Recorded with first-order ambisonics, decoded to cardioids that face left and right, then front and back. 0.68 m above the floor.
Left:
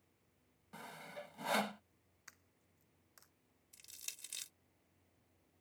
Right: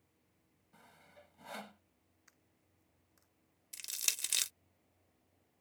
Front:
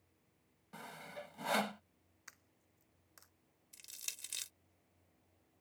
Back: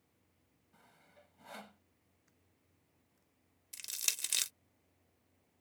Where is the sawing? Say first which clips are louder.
Left 11 dB, front 16 dB; 35° left.